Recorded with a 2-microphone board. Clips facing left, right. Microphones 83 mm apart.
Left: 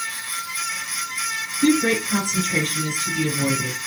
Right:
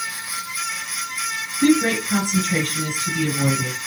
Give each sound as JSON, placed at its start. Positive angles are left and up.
{"t": 1.6, "sound": "a woman speaking", "side_deg": -55, "distance_m": 2.5}